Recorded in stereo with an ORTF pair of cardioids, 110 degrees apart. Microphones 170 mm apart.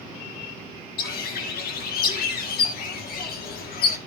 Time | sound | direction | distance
1.0 | a bird | 65° left | 1.7 m